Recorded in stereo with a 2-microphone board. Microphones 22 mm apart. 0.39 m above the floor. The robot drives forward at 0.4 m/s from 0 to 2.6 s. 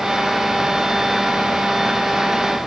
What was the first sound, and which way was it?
Only background noise.